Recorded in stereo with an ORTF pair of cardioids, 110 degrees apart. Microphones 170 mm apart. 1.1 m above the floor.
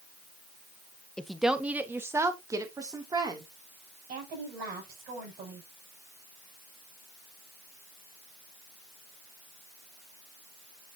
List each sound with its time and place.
1.2 s a woman speaking: 5° left, 0.8 m; by 3.5 s 25° right, 2.5 m
4.1 s a woman speaking: 60° right, 6 m